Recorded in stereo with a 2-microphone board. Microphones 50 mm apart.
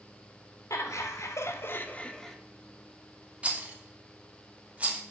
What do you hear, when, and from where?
0.7 s laughter: 85° left, 1.4 m; by 2.4 s 5° left (ahead or behind), 0.9 m
3.4 s a rattle: 25° right (ahead or behind), 1.0 m